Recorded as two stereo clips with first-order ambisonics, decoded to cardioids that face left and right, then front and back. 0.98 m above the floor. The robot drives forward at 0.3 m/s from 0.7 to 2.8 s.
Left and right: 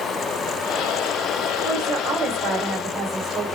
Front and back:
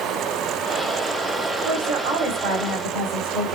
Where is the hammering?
No hammering in this recording.